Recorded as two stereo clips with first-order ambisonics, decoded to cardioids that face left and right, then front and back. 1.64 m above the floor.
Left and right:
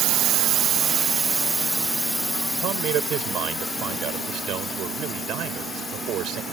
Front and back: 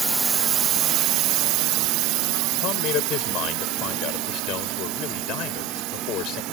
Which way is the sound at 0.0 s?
105° right.